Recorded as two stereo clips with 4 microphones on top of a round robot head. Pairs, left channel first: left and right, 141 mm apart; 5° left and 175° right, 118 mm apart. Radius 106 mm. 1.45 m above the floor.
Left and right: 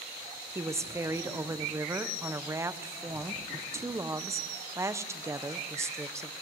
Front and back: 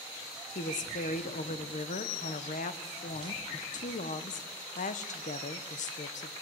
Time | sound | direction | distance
0.6 | a woman speaking | 20° right | 1.1 m